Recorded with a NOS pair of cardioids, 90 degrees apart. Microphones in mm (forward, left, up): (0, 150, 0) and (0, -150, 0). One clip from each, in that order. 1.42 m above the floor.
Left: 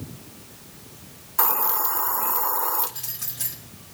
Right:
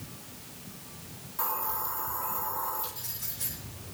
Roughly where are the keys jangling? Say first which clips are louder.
Left 6 dB; ahead left.